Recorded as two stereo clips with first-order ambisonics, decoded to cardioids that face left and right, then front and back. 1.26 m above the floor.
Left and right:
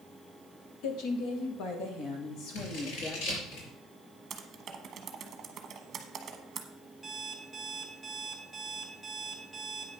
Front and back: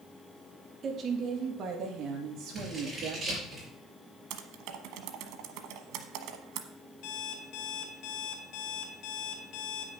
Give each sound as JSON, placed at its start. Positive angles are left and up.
{"t": 0.8, "sound": "a woman speaking", "azimuth_deg": 115, "distance_m": 1.6}
{"t": 2.5, "sound": "scissors", "azimuth_deg": 100, "distance_m": 5.0}
{"t": 4.3, "sound": "typing on a keyboard", "azimuth_deg": -155, "distance_m": 1.1}
{"t": 7.0, "sound": "an alarm clock", "azimuth_deg": -5, "distance_m": 2.0}